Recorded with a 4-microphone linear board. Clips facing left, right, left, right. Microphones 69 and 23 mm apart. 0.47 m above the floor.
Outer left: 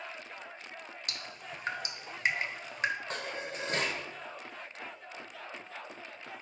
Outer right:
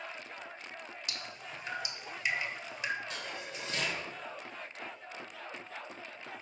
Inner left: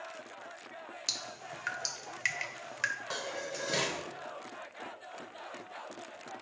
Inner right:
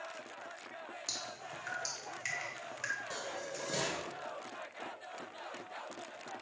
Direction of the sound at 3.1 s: 45° left (ahead or behind).